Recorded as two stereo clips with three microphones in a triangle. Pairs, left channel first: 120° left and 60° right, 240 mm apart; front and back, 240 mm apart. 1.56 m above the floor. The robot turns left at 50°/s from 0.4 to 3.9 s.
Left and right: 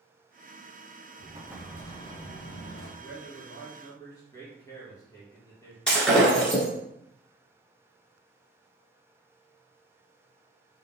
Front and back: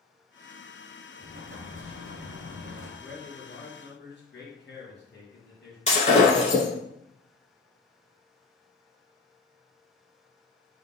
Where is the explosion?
125° right, 0.9 m; by 2.9 s 145° left, 0.9 m.